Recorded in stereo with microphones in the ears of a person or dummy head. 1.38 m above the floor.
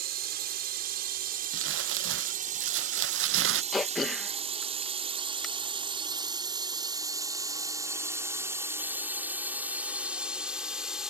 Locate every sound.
0.0 s a drone: 55° right (ahead or behind); by 11.1 s centre (ahead or behind)
1.5 s crumpling: 70° right (ahead or behind)
3.7 s throat clearing: centre (ahead or behind)